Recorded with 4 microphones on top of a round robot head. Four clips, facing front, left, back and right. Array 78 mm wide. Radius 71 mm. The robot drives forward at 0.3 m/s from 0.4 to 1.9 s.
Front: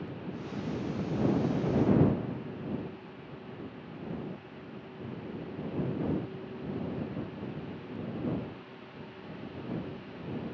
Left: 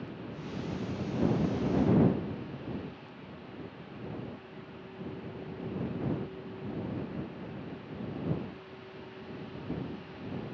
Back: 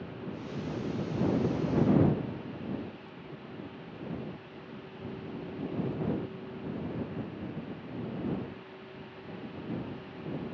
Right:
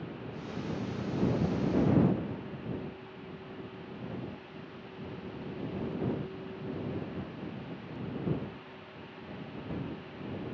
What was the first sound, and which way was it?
Only background noise.